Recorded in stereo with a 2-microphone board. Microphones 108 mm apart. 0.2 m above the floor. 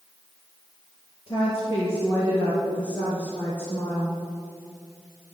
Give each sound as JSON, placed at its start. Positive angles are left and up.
{"t": 1.3, "sound": "a woman speaking", "side_deg": 50, "distance_m": 4.0}